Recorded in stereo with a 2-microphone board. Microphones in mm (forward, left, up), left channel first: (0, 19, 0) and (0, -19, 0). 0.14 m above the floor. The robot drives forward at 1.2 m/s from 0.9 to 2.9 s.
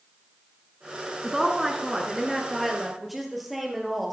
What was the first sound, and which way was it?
A woman speaking, 5° right (ahead or behind).